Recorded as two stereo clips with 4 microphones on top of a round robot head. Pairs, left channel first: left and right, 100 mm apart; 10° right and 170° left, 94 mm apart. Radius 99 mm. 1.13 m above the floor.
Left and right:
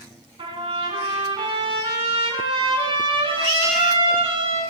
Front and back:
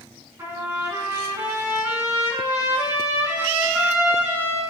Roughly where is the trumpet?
Behind right.